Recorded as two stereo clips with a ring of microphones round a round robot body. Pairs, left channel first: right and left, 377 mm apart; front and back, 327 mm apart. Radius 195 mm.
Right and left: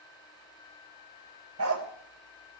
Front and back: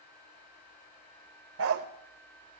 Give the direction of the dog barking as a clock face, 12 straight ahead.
7 o'clock.